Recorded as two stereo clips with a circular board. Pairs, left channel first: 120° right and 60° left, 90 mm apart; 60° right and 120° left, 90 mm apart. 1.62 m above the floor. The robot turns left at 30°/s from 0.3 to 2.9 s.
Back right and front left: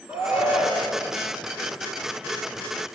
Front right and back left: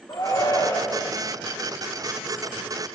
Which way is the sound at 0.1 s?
10° right.